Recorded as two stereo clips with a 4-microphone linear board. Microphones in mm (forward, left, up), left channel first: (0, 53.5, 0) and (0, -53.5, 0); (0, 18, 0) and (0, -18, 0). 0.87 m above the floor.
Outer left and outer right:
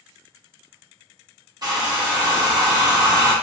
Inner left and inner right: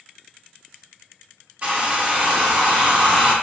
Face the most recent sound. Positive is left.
turn(degrees=-40)  # may be behind; listen again after turning